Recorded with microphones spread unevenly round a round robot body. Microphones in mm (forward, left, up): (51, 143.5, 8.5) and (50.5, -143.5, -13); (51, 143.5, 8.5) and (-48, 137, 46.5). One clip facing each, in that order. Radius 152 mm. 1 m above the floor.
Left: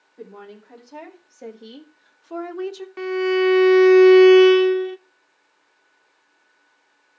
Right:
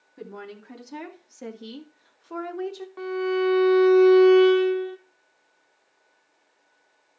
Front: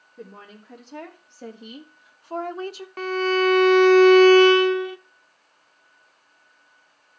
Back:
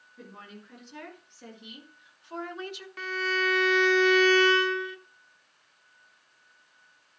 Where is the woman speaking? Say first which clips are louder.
Even, front 4 dB; 45° right, 2.5 m; by 2.9 s 30° left, 1.2 m.